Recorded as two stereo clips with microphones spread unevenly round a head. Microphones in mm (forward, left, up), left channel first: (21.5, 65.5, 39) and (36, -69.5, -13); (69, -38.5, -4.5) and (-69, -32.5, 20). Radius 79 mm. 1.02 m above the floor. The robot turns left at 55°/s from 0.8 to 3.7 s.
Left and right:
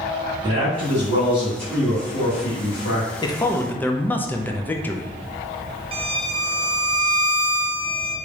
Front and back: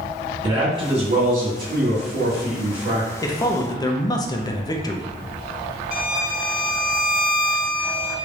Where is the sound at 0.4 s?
125° right, 2.0 m; by 3.1 s 110° left, 2.0 m.